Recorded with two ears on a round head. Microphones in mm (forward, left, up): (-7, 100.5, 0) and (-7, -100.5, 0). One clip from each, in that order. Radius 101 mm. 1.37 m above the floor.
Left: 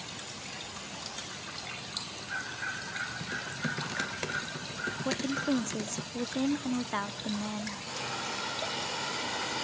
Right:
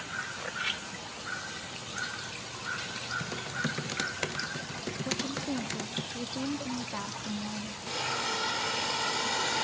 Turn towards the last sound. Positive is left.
turn(degrees=-20)  # may be behind; listen again after turning